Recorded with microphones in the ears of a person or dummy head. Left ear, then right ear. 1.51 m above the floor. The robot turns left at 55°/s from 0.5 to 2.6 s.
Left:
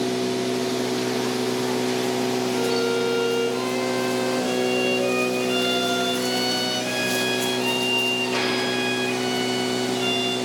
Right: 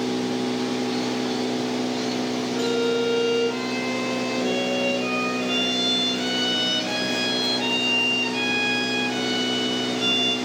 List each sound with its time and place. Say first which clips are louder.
0.0 s an engine running: left 1 dB; straight behind, 1.8 m; by 10.5 s 65° left, 1.8 m
2.5 s a violin: right 2 dB; 15° right (ahead or behind), 1.5 m; by 10.4 s 20° right (ahead or behind), 1.5 m